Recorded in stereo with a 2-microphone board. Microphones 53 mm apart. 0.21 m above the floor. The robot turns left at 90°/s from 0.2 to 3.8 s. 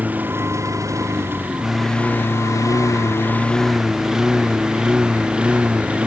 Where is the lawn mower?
30° right (ahead or behind); by 6.1 s 20° right (ahead or behind).